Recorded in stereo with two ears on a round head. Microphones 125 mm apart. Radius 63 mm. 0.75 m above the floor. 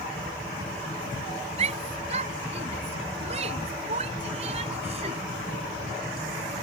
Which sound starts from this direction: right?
A shout, at 1.6 s.